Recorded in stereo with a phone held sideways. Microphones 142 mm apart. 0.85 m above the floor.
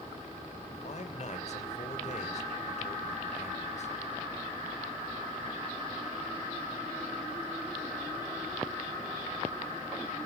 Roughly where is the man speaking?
Left.